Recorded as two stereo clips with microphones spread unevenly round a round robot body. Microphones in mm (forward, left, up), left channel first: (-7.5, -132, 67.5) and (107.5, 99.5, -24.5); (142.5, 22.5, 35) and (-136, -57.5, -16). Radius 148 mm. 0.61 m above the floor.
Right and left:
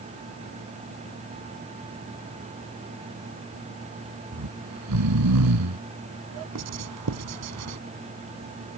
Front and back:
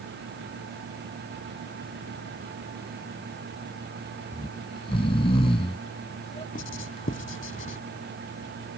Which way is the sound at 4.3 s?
90° left.